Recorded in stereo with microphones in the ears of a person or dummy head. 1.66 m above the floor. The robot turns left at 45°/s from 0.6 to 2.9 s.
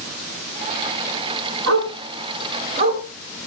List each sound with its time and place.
1.7 s a dog barking: 75° right (ahead or behind), 5.5 m; by 3.0 s 25° right (ahead or behind), 5.5 m